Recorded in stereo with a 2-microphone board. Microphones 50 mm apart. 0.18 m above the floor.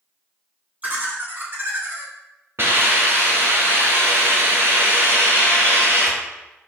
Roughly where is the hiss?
Right.